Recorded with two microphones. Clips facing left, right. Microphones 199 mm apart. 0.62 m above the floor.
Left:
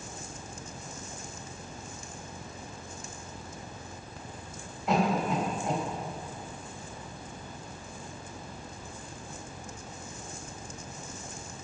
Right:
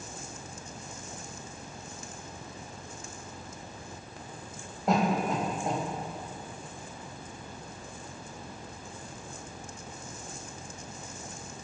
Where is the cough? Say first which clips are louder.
Even; 45° right (ahead or behind), 4 m.